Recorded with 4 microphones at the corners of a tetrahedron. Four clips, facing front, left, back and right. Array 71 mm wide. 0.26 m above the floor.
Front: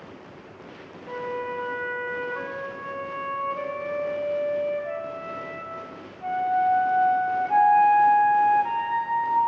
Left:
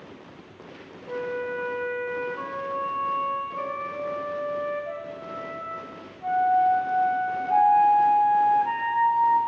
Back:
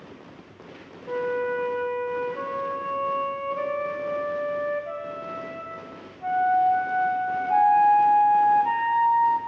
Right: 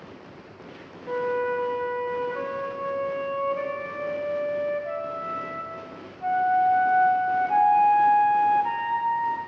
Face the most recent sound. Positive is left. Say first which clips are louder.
# right 4 dB, back 5 dB
turn(degrees=-60)